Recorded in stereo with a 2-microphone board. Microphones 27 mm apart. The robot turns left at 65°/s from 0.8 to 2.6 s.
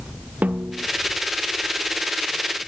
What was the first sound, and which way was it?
A snare drum, 70° right (ahead or behind).